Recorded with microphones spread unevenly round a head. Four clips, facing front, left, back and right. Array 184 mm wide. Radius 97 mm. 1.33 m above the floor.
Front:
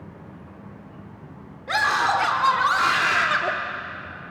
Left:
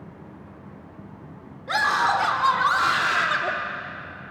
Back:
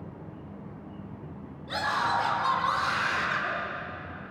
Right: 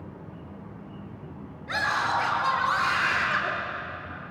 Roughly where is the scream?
Ahead left.